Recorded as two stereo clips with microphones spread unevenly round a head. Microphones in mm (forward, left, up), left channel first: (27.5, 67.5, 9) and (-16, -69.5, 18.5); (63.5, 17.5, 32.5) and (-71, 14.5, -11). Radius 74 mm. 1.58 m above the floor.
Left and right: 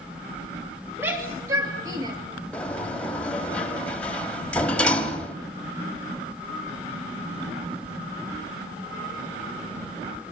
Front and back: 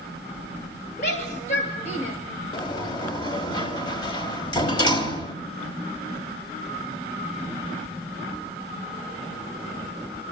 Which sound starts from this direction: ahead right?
A shout, at 1.0 s.